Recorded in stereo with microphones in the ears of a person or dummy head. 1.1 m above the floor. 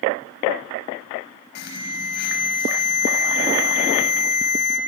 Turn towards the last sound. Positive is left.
turn(degrees=60)  # may be behind; listen again after turning